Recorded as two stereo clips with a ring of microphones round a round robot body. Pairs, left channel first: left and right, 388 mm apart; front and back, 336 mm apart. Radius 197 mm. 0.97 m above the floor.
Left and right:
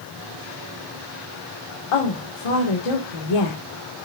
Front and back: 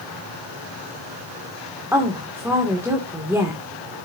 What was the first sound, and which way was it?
A woman speaking, 95° left.